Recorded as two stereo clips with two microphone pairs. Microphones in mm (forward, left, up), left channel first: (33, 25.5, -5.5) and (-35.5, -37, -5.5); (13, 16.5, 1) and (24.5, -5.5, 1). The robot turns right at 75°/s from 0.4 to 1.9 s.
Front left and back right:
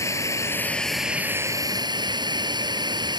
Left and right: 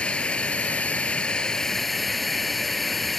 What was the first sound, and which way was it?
A drone, 90° left.